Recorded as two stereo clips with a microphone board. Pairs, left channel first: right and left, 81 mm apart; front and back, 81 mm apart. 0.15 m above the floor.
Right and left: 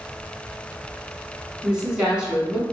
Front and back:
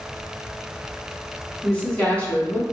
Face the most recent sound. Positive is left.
turn(degrees=35)